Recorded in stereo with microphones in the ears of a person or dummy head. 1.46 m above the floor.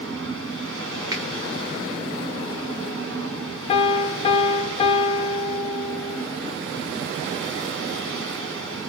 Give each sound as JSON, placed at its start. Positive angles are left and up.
{"t": 0.0, "sound": "a fan", "side_deg": -65, "distance_m": 1.7}
{"t": 1.1, "sound": "a finger snap", "side_deg": -20, "distance_m": 0.7}
{"t": 3.7, "sound": "a piano", "side_deg": 35, "distance_m": 0.7}